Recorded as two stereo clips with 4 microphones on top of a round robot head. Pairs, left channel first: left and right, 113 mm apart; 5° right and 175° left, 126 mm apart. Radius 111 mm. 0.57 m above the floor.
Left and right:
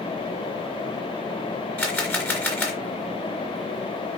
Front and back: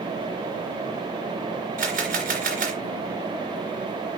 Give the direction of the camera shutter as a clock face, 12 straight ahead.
7 o'clock.